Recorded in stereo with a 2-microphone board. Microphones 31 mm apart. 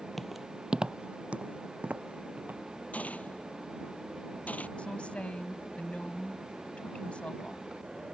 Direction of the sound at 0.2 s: 5° left (ahead or behind).